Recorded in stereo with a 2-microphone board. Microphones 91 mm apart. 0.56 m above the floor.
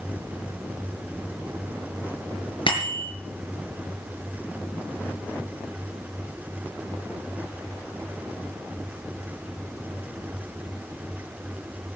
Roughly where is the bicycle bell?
Left.